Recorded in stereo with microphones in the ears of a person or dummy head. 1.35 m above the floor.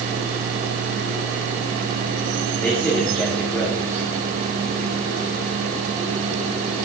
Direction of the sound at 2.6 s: 10° left (ahead or behind).